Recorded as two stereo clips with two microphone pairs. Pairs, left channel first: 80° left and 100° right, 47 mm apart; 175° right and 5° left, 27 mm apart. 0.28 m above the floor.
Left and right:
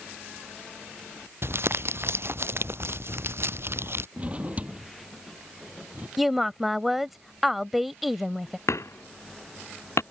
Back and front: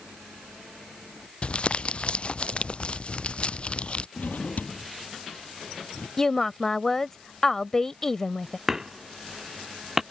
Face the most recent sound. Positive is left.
turn(degrees=80)